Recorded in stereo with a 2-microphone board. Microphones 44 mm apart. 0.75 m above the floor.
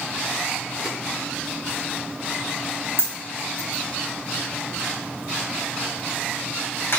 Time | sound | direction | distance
3.0 | a dropped coin | 65° left (ahead or behind) | 2.0 m